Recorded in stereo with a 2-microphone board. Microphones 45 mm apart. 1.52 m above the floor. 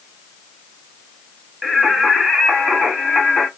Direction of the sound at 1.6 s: 5° right (ahead or behind).